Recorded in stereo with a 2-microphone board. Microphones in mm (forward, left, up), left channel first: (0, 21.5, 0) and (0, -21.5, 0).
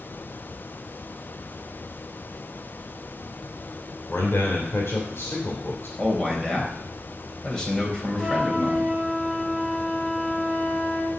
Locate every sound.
4.1 s a man speaking: 65° left (ahead or behind), 2.5 m
6.0 s a man speaking: 15° left (ahead or behind), 3.5 m
8.2 s a flute: 5° right (ahead or behind), 2.5 m